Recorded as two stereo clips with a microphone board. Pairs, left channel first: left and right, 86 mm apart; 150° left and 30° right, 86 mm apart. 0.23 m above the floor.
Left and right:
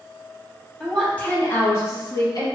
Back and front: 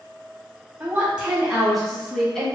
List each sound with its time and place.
0.8 s a woman speaking: 10° left, 1.0 m; by 2.5 s 65° left, 1.5 m